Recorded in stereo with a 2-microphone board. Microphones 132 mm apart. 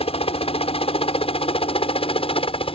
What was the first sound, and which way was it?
A helicopter, 50° left (ahead or behind).